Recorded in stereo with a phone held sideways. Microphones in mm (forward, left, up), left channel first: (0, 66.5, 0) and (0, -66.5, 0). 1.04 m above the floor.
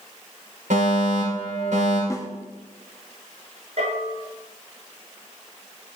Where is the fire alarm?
75° right (ahead or behind), 6.5 m.